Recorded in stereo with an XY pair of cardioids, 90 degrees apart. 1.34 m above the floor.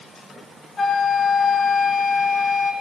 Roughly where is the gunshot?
I don't hear a gunshot.